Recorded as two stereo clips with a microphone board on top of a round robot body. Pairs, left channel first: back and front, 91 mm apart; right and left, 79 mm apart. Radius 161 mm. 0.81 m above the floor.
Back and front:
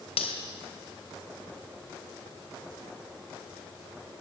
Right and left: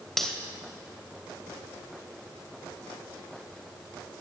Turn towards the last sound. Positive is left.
turn(degrees=-175)